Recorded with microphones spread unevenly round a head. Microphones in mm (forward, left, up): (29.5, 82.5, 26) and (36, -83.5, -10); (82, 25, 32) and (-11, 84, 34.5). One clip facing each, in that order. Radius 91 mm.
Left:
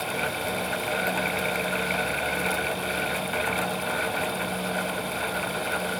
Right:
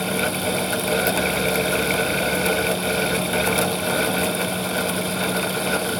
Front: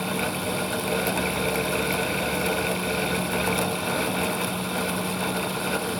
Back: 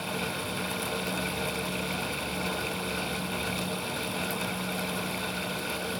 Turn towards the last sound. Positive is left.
No sound to turn to.